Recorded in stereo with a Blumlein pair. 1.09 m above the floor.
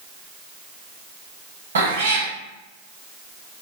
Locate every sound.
1.8 s a cat meowing: 65° right, 1.5 m